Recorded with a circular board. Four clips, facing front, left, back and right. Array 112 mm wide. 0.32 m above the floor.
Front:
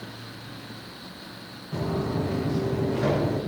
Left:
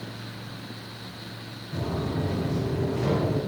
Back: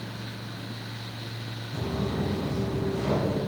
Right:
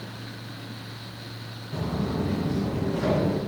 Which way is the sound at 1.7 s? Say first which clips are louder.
Right 1 dB, front 3 dB; 5° right.